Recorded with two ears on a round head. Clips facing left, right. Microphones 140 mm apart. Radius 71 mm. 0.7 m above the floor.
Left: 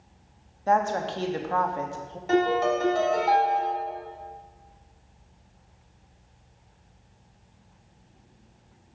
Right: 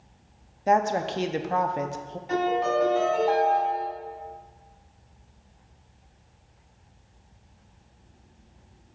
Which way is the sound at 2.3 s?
60° left (ahead or behind).